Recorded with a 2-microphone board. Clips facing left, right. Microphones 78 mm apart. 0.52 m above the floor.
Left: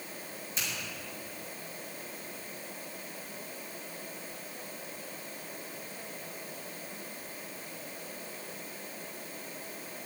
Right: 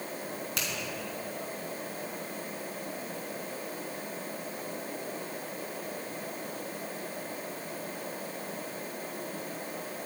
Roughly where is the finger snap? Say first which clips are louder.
Even; right.